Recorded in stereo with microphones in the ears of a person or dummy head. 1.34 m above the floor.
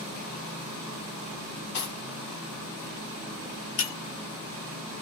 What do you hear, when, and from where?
1.7 s cutlery clinking: 70° left (ahead or behind), 1.5 m
3.8 s breaking glass: 65° left (ahead or behind), 1.1 m